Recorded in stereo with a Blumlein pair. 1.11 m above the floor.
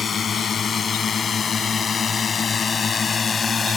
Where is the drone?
20° left; by 3.8 s 15° left.